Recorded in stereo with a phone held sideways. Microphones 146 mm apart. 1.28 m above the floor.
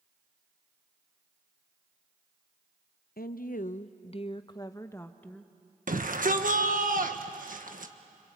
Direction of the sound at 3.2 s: 85° left.